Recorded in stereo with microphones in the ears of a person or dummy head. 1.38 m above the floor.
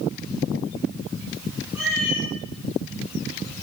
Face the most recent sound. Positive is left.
turn(degrees=-10)  # may be behind; listen again after turning